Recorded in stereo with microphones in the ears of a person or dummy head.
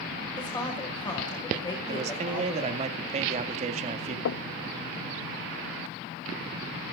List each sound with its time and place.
0.4 s a woman speaking: 25° left (ahead or behind), 5.5 m
1.9 s a man speaking: 40° right (ahead or behind), 2 m
4.2 s knocking: 70° left (ahead or behind), 0.8 m